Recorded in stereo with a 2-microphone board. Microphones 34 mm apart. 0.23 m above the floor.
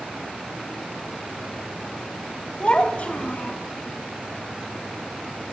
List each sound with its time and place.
2.6 s a child speaking: 35° left (ahead or behind), 0.9 m; by 3.6 s 40° left (ahead or behind), 1.5 m